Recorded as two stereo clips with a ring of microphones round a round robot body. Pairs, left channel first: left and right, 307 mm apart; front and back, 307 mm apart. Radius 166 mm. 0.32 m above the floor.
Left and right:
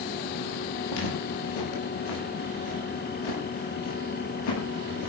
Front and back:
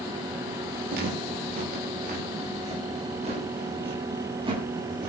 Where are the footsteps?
115° left, 8 m; by 5.1 s 100° left, 9 m.